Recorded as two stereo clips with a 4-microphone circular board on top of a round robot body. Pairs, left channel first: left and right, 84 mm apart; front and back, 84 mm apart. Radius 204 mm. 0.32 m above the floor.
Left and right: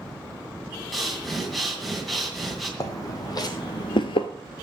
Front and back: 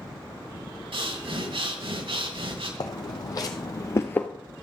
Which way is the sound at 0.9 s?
Straight behind.